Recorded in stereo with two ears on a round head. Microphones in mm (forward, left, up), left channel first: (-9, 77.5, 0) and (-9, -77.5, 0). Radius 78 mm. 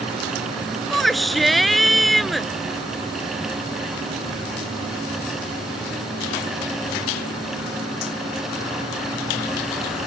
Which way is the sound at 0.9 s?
Centre (ahead or behind).